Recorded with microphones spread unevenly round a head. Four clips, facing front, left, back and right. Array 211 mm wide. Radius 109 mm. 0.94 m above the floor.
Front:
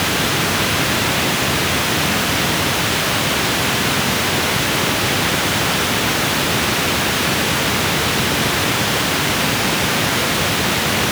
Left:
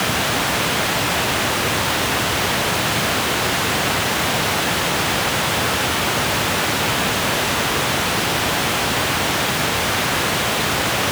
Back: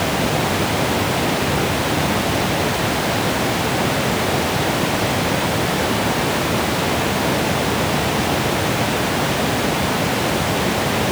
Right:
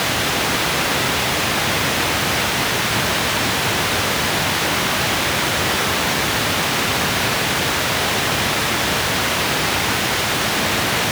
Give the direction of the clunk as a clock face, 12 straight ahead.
I don't hear a clunk.